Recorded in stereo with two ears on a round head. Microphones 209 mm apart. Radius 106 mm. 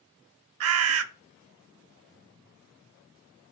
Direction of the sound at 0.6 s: 70° right (ahead or behind).